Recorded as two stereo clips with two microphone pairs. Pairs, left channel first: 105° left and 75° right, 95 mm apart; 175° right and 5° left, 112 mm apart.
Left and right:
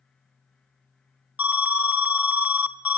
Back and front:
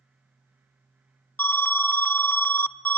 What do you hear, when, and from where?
1.4 s an alarm: 125° right, 0.9 m